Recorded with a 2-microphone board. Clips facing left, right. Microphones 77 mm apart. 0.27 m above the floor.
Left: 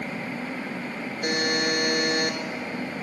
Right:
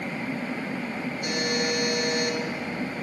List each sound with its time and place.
1.2 s a buzzer: 55° left (ahead or behind), 0.9 m